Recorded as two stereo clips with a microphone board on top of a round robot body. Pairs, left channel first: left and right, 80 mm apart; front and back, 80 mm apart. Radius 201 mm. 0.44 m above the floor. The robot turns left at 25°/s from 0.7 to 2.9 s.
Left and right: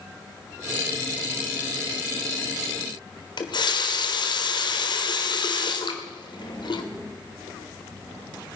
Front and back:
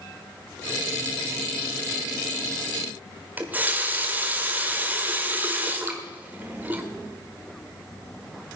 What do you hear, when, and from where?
3.4 s a running tap: 110° left, 1.6 m